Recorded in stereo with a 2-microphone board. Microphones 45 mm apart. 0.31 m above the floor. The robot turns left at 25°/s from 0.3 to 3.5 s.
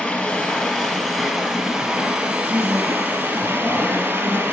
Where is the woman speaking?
70° right (ahead or behind), 3.5 m; by 4.4 s 45° right (ahead or behind), 3.5 m.